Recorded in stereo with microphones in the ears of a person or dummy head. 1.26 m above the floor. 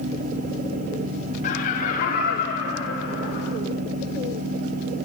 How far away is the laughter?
About 1.3 m.